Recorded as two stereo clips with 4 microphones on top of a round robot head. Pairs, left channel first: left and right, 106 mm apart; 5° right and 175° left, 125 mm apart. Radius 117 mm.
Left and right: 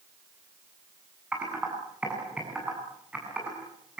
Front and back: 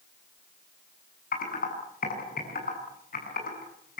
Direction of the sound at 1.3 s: 10° right.